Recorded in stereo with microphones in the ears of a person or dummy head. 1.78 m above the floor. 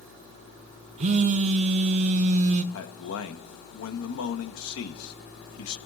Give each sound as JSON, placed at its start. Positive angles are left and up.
{"t": 1.0, "sound": "a phone buzzing", "side_deg": -40, "distance_m": 0.6}
{"t": 2.7, "sound": "a man speaking", "side_deg": 75, "distance_m": 1.7}